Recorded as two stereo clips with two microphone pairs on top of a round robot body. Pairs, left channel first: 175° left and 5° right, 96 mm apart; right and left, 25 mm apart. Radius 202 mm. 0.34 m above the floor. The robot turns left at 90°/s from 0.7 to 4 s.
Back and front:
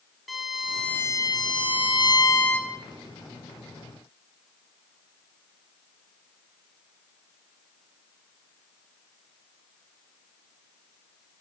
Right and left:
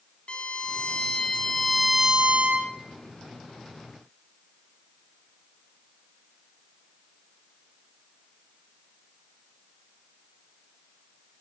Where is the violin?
90° right, 1.8 m; by 2.7 s 85° left, 1.8 m.